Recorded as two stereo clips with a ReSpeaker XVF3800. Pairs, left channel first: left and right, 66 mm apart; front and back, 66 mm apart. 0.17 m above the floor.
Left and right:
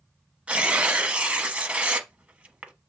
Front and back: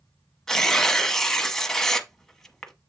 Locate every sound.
0.5 s tearing paper: 70° right, 1.0 m